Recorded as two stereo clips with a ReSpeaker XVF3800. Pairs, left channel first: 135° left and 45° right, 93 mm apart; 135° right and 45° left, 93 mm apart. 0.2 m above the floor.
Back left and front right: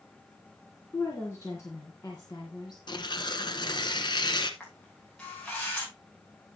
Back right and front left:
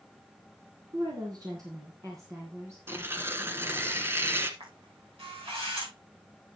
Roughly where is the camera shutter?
Ahead left.